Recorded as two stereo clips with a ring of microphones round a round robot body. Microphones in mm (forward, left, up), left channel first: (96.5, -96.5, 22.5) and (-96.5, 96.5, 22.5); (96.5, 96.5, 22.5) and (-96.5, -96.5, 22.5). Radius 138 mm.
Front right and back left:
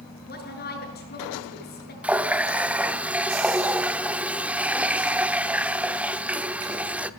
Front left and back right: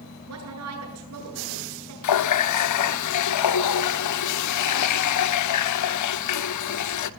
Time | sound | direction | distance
0.3 | a woman speaking | 100° right | 8 m
2.0 | a running tap | 50° left | 1.0 m